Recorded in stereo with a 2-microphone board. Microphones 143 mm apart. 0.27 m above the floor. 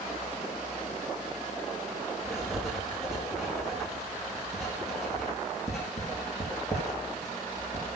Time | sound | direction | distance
2.2 | writing | 5° right (ahead or behind) | 4.5 m